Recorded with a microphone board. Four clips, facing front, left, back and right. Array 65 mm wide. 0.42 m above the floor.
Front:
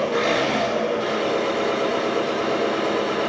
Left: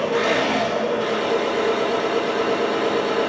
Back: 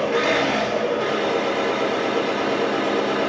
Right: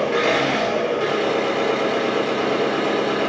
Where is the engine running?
120° right, 3 m.